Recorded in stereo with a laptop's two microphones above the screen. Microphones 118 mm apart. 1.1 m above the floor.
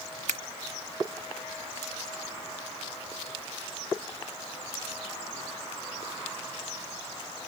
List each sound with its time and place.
0.3 s scissors: 75° right (ahead or behind)